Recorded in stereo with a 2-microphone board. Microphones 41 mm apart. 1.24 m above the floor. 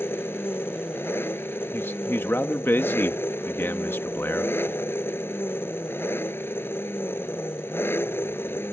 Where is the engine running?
65° left (ahead or behind).